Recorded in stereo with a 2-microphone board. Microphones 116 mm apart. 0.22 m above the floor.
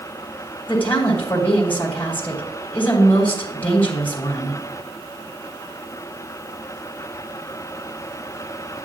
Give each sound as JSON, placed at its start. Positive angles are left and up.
{"t": 0.7, "sound": "a woman speaking", "side_deg": 15, "distance_m": 1.5}